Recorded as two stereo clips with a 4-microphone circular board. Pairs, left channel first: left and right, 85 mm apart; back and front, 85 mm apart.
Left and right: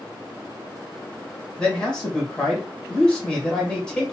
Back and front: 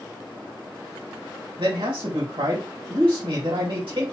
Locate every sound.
1.6 s a man speaking: 10° left, 1.8 m